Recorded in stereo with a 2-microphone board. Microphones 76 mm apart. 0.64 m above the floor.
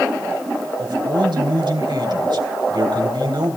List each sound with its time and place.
0.8 s a man speaking: 80° right, 3 m